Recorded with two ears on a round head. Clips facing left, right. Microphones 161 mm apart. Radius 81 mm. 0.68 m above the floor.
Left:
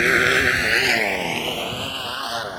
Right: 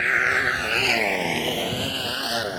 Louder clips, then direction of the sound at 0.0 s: Left 8 dB; 60° left (ahead or behind).